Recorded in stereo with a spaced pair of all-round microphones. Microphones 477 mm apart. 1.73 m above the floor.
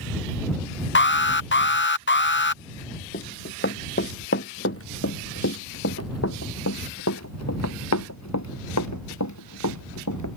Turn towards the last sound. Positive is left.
turn(degrees=35)  # may be behind; listen again after turning